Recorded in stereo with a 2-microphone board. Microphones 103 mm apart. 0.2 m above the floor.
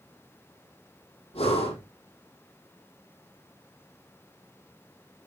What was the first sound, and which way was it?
Breathing, 80° left.